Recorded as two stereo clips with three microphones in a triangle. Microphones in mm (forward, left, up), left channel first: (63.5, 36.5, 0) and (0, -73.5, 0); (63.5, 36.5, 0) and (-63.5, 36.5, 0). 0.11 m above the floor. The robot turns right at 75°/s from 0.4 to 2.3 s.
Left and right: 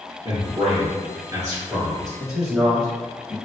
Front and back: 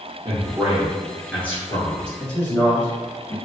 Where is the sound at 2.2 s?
55° right, 1.2 m; by 3.4 s 45° right, 1.2 m.